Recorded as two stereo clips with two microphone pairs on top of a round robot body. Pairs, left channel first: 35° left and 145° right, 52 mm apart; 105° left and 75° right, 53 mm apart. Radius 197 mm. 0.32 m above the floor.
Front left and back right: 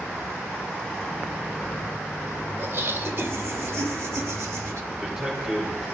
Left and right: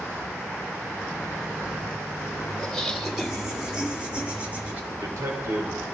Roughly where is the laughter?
Behind.